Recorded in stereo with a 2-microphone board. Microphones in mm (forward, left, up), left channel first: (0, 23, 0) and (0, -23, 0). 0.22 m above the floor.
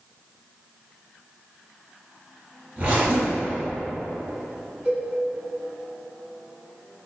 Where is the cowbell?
30° right (ahead or behind), 1.7 m.